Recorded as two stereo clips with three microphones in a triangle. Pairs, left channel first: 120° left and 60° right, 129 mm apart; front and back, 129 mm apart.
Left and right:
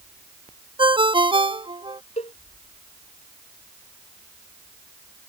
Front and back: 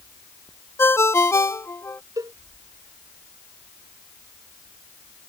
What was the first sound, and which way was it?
A ringtone, 55° right.